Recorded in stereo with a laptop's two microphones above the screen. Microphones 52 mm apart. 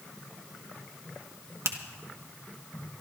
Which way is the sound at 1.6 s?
65° right (ahead or behind).